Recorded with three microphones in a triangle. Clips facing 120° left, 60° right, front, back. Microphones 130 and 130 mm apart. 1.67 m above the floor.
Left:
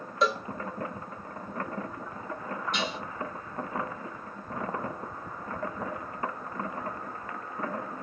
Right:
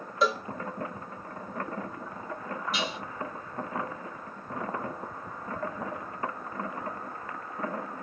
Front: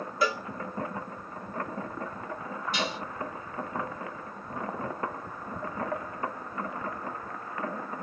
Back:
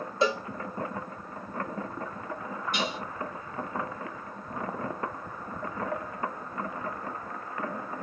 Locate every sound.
0.2 s a cowbell: 145° right, 0.7 m
2.7 s dishes clattering: 145° right, 3 m